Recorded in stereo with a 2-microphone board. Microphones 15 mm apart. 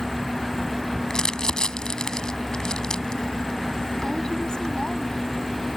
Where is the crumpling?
60° left (ahead or behind).